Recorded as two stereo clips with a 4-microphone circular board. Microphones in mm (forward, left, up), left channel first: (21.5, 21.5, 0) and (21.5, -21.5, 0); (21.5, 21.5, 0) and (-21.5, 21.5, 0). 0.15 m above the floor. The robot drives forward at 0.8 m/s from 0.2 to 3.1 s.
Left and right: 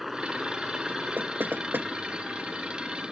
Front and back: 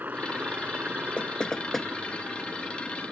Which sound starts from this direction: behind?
A helicopter, at 0.0 s.